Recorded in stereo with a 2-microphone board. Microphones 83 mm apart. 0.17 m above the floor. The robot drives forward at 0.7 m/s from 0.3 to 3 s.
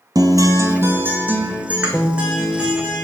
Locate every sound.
0.1 s a guitar: 50° right (ahead or behind), 0.6 m; by 3.0 s 10° right (ahead or behind), 2.5 m